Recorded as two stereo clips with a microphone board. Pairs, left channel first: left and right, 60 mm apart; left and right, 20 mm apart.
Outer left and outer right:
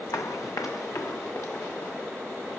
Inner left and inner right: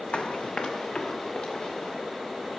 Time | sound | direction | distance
0.1 | running footsteps | 70° left (ahead or behind) | 0.8 m